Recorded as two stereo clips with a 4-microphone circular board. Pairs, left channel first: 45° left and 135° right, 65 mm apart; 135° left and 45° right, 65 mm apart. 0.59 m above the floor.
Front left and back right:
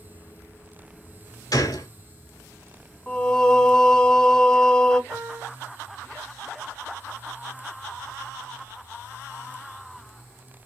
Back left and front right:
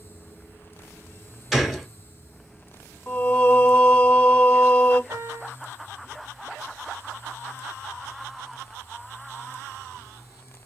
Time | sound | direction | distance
1.5 | a gunshot | 45° left | 1.1 m
3.1 | singing | 105° left | 1.0 m
5.1 | a piano | 65° right | 2.5 m